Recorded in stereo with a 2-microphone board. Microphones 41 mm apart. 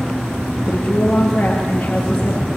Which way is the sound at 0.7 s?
45° left (ahead or behind).